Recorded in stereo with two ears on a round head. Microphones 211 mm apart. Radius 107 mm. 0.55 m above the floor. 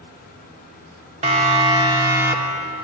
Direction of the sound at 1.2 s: 25° right (ahead or behind).